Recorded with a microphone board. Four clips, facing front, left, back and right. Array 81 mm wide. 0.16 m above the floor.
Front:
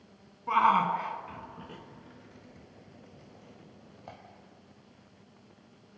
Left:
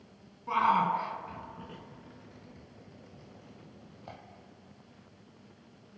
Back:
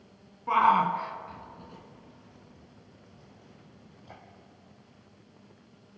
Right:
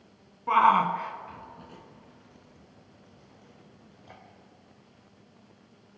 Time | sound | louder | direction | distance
0.5 | a shout | right 5 dB, back 2 dB | 100° right | 1.6 m